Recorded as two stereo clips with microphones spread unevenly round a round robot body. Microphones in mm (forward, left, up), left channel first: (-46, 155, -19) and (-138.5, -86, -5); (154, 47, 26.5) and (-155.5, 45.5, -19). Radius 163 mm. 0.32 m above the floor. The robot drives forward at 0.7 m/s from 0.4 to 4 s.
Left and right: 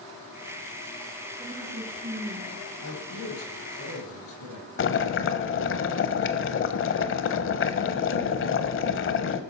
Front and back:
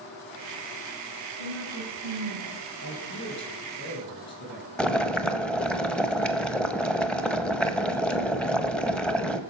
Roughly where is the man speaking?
Ahead left.